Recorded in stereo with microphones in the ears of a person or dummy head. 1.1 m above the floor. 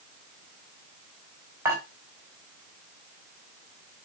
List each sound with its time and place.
1.6 s dishes clattering: 10° right (ahead or behind), 4 m